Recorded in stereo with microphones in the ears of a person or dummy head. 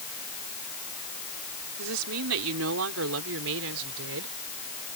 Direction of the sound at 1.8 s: 85° right.